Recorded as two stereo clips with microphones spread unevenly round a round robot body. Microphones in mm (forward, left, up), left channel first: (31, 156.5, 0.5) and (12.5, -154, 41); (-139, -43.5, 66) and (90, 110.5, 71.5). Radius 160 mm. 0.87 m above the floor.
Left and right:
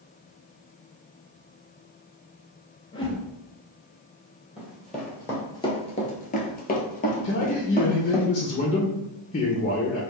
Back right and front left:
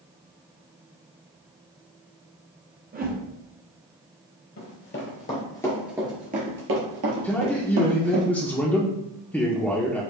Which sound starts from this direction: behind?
Running footsteps, at 4.6 s.